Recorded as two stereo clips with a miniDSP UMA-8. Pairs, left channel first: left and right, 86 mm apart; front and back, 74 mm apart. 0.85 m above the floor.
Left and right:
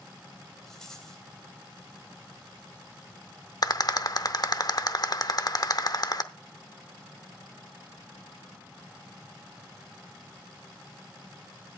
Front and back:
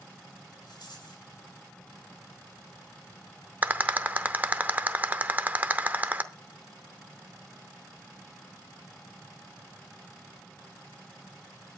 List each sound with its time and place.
0.7 s a rattle: 5° left, 3 m
3.6 s a rattle: 120° left, 0.7 m